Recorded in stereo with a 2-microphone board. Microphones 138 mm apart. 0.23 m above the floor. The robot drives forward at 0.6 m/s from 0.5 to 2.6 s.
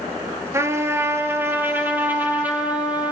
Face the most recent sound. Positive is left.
turn(degrees=-10)  # may be behind; listen again after turning